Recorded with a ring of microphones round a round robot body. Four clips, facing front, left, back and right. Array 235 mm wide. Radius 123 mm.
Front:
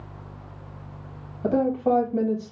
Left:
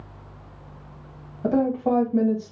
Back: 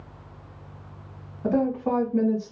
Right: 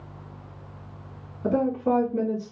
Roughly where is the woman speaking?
Ahead left.